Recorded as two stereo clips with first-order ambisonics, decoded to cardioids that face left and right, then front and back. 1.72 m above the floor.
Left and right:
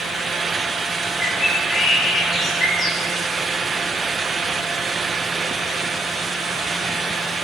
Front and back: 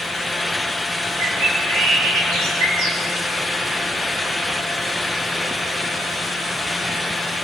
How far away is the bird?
About 3.5 m.